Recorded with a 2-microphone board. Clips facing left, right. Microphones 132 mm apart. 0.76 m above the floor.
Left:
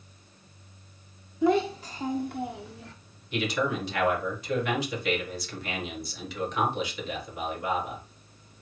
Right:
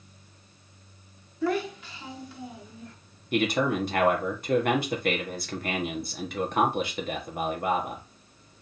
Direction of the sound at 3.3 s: 50° right (ahead or behind).